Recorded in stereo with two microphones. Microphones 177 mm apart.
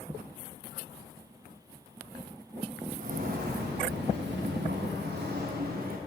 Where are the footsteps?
50° right (ahead or behind), 2 m; by 6.0 s 55° right (ahead or behind), 2.5 m.